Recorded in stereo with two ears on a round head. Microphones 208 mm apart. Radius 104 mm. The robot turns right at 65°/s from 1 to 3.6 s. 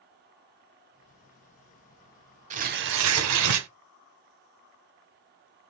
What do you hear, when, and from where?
2.5 s tearing paper: 150° right, 0.7 m; by 3.7 s 75° right, 0.7 m